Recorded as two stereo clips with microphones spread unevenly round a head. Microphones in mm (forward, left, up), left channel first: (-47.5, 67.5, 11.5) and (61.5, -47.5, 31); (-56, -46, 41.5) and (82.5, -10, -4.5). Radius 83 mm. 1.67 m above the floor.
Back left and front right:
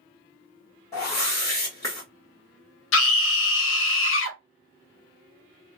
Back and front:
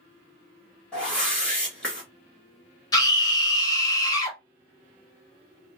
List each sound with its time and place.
0.9 s a whoosh: 160° right, 1.3 m
2.9 s a scream: 135° left, 0.8 m